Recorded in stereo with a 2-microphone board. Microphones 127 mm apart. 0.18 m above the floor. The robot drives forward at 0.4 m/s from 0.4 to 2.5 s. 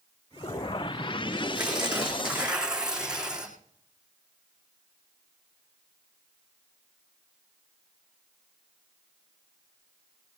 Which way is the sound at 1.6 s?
5° right (ahead or behind).